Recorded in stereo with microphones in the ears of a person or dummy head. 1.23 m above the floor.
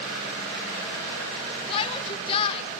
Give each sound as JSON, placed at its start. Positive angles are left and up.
{"t": 1.7, "sound": "a shout", "side_deg": 30, "distance_m": 1.0}